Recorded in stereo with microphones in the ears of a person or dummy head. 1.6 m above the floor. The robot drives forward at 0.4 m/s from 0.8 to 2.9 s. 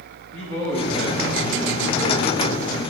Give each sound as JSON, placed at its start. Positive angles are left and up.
{"t": 0.3, "sound": "a man speaking", "side_deg": -80, "distance_m": 3.5}